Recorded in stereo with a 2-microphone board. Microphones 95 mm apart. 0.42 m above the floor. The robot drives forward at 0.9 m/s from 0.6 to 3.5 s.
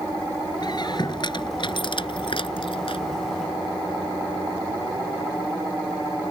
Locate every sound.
0.6 s a squeak: 50° left (ahead or behind); by 3.0 s 70° left (ahead or behind)